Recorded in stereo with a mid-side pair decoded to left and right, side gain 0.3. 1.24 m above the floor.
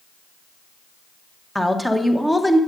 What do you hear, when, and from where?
1.6 s a woman speaking: 5° left, 0.9 m